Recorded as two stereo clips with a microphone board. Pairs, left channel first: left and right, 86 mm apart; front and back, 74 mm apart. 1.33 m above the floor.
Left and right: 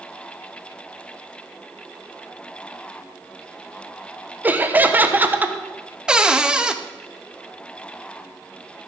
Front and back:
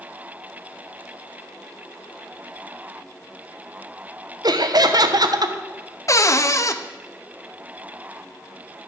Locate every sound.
4.4 s laughter: 160° right, 1.1 m
6.1 s a cupboard door: 15° right, 0.7 m